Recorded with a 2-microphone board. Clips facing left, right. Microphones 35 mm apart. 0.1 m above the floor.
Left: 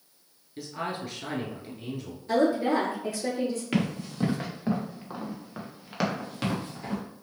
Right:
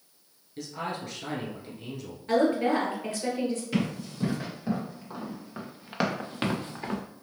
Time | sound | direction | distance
0.6 | a man speaking | 10° left (ahead or behind) | 1.3 m
2.3 | a woman speaking | 40° right (ahead or behind) | 1.8 m
3.7 | running footsteps | 45° left (ahead or behind) | 1.7 m